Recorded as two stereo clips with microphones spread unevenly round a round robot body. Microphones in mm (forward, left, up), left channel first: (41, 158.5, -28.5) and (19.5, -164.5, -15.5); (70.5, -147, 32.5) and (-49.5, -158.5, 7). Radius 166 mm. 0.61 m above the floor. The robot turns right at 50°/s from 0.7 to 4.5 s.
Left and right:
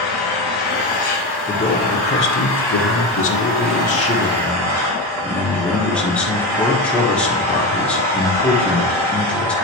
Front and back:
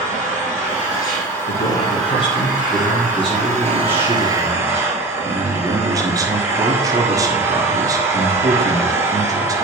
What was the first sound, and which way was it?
An engine running, 70° left.